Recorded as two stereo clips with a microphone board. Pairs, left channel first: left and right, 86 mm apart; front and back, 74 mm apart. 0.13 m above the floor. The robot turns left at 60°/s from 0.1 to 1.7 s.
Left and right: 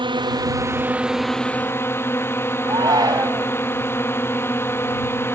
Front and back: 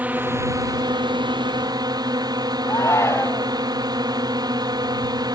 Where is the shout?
55° right.